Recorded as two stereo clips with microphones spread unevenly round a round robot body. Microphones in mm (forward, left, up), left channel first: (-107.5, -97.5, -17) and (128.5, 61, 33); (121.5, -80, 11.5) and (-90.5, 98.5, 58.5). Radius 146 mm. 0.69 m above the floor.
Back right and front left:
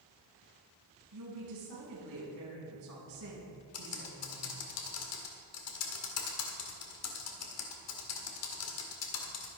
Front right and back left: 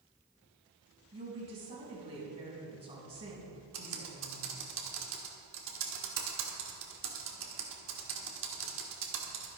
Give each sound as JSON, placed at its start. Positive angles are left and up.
{"t": 1.1, "sound": "a woman speaking", "azimuth_deg": 70, "distance_m": 6.0}
{"t": 3.7, "sound": "typing on a keyboard", "azimuth_deg": -170, "distance_m": 2.0}